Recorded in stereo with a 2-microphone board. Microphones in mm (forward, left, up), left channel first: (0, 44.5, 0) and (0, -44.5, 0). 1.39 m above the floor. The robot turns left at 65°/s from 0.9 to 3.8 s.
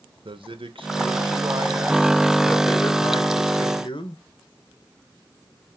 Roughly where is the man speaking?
Right.